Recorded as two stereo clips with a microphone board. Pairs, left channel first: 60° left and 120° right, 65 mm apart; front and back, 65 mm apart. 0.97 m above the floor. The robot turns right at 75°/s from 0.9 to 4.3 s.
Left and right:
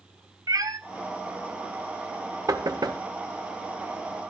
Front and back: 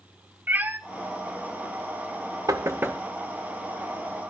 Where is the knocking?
150° right, 0.9 m; by 3.0 s 115° right, 0.9 m.